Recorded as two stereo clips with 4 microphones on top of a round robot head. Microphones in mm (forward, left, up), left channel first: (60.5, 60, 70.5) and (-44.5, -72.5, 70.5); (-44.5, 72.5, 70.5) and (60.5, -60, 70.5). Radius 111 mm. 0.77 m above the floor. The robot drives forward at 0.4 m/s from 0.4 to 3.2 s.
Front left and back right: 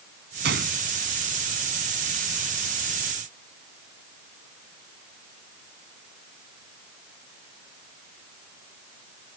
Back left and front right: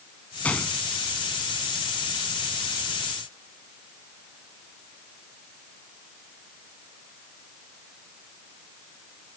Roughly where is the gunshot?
Behind right.